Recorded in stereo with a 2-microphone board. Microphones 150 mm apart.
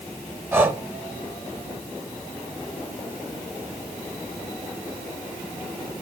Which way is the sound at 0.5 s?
15° right (ahead or behind).